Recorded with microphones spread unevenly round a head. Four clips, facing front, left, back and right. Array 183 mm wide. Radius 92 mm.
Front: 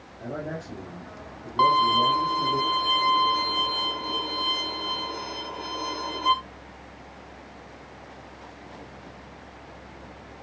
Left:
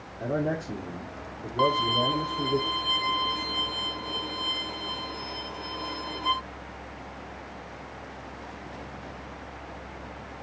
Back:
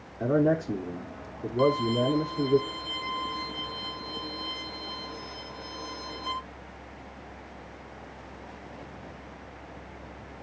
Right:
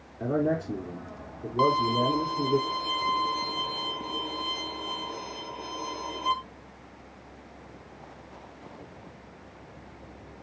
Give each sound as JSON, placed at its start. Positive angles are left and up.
{"t": 0.2, "sound": "a man speaking", "azimuth_deg": -170, "distance_m": 3.5}
{"t": 1.6, "sound": "a violin", "azimuth_deg": -5, "distance_m": 1.5}